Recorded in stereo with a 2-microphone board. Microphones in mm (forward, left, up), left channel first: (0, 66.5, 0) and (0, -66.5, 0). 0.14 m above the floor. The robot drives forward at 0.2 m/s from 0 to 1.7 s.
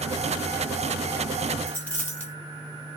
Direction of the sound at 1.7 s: 10° left (ahead or behind).